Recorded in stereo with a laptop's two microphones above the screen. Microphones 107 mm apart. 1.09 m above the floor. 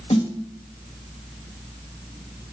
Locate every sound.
0.1 s a snare drum: 75° left (ahead or behind), 2 m